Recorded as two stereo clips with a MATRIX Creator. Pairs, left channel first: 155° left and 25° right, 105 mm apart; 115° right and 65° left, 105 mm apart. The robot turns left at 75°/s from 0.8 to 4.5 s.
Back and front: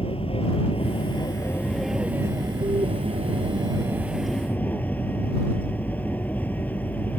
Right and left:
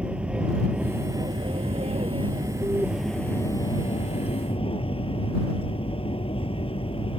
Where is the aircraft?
145° left; by 7.2 s 130° right.